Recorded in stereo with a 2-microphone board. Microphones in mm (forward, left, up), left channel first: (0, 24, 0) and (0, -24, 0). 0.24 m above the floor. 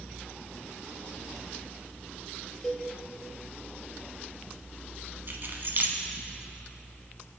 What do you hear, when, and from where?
2.6 s a cowbell: 5° left (ahead or behind), 2.5 m
5.3 s keys jangling: 55° right (ahead or behind), 1.5 m